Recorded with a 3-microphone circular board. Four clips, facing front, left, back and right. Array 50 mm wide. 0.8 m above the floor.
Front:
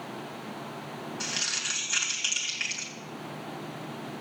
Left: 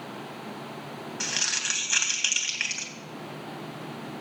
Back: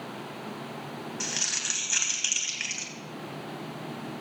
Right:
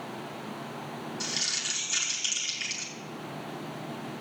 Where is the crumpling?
95° left, 2.5 m.